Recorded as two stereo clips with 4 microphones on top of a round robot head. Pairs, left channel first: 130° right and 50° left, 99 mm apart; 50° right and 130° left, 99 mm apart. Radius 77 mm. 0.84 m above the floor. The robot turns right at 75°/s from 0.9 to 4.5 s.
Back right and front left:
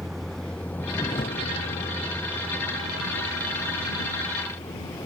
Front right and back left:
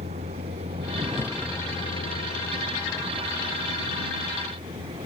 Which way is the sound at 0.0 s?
140° left.